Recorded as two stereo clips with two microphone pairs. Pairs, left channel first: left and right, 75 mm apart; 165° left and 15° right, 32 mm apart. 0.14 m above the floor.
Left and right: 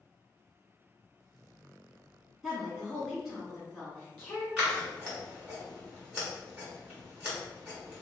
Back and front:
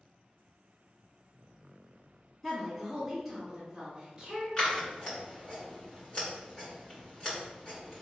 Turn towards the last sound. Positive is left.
turn(degrees=-155)